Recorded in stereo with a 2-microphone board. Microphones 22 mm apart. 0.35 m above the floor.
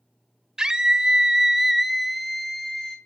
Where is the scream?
35° right (ahead or behind), 1.4 m; by 3.0 s 20° left (ahead or behind), 1.5 m.